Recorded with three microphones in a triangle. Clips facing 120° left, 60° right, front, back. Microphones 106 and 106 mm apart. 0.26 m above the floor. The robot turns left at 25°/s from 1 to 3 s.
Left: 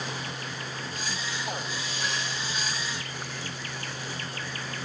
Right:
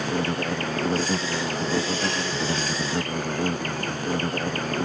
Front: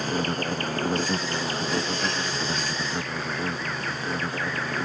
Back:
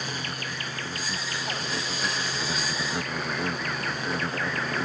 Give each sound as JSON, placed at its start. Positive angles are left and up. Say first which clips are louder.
{"t": 0.0, "sound": "an insect", "louder": "right 11 dB, front 8 dB", "azimuth_deg": -40}